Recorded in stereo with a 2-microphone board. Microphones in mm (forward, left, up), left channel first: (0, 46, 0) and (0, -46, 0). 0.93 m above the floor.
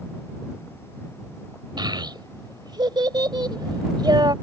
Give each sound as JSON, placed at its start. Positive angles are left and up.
{"t": 1.8, "sound": "a child speaking", "side_deg": -55}